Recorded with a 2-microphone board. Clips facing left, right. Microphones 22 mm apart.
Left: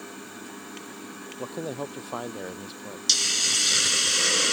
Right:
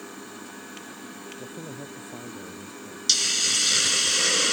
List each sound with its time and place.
1.4 s a man speaking: 80° left
3.1 s a hiss: centre (ahead or behind)